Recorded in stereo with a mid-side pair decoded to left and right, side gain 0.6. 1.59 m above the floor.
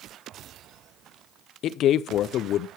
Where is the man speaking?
55° left, 0.7 m.